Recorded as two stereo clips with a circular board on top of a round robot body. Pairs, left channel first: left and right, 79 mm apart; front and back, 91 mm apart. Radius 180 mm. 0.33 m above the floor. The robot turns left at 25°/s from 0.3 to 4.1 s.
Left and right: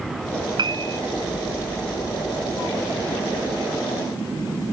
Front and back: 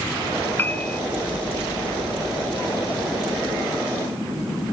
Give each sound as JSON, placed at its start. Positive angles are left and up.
{"t": 0.6, "sound": "a piano", "azimuth_deg": -70}